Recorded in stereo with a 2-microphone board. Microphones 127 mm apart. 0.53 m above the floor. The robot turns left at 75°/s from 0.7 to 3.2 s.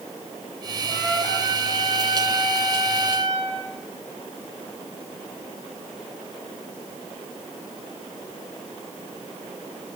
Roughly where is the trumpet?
Ahead left.